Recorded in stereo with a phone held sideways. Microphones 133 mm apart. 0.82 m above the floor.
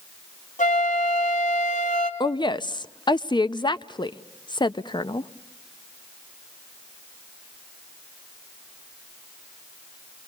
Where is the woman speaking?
35° left (ahead or behind), 0.5 m.